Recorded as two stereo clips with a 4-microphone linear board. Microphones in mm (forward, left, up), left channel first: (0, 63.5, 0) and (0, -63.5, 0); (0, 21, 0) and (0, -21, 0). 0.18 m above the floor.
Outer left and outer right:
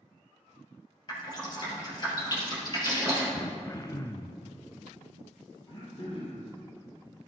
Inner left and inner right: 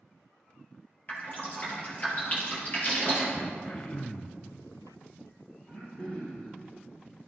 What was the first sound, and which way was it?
Dripping, 35° left (ahead or behind).